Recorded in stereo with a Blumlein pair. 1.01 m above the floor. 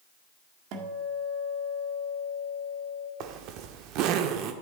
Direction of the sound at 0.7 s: 40° right.